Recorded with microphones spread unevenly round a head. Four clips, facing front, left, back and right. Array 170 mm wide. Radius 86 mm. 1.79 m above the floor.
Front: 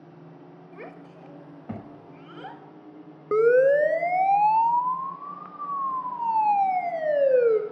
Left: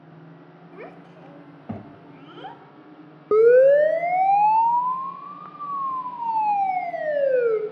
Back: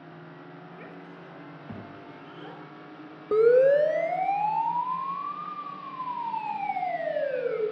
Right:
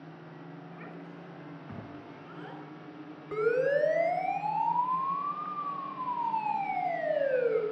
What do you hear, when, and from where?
0.7 s a child speaking: 55° left, 4.5 m; by 2.6 s 60° left, 7 m
3.3 s a siren: 80° left, 2 m; by 7.6 s 30° left, 5.5 m